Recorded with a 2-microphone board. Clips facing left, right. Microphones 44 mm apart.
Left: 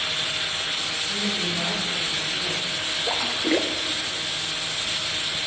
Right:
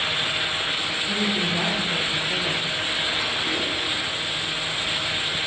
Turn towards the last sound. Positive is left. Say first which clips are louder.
# left 1 dB
turn(degrees=65)  # may be behind; listen again after turning